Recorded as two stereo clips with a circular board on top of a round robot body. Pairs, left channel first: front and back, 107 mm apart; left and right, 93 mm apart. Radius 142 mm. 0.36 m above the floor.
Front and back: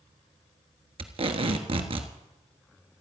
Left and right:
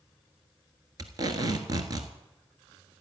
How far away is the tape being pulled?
About 1.4 m.